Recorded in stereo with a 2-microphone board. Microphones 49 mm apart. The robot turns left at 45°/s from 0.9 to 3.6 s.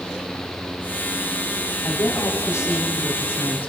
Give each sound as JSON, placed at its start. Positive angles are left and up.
{"t": 1.8, "sound": "a woman speaking", "azimuth_deg": 120, "distance_m": 5.5}